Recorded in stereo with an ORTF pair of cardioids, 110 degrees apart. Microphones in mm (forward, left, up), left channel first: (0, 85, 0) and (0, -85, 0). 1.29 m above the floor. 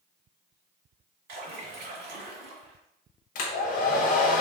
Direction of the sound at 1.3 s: 70° right.